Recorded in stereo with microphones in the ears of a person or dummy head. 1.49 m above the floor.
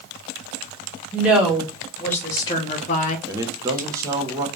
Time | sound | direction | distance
1.1 | a woman speaking | 5° right (ahead or behind) | 1.9 m
3.3 | a man speaking | 15° right (ahead or behind) | 0.9 m